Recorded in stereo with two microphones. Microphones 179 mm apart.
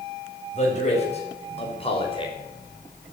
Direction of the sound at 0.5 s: 40° left (ahead or behind).